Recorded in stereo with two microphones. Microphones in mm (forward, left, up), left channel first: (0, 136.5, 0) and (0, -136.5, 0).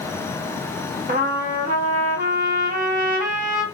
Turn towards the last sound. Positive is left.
turn(degrees=-30)  # may be behind; listen again after turning